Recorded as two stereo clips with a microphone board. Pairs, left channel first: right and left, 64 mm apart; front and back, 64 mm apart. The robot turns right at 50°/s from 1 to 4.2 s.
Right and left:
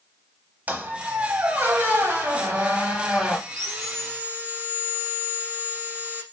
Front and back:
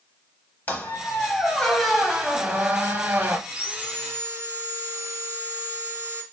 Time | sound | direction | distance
0.7 | a squeak | 45° left | 0.8 m
3.5 | sawing | 105° left | 1.1 m